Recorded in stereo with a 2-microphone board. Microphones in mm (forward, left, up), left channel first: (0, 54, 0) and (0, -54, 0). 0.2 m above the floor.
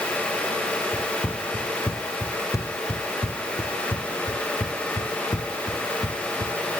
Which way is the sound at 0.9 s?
20° left (ahead or behind).